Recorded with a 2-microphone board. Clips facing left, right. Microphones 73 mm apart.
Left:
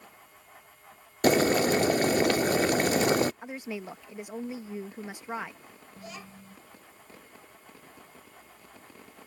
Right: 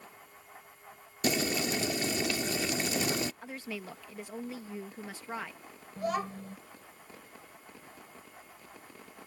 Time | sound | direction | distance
1.2 | boiling | 50° left (ahead or behind) | ?
3.4 | a woman speaking | 20° left (ahead or behind) | ?
6.0 | a child speaking | 60° right (ahead or behind) | ?